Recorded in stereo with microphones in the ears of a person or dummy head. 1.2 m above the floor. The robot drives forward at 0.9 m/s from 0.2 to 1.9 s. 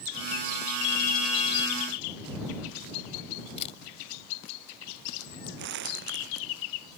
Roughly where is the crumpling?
Right.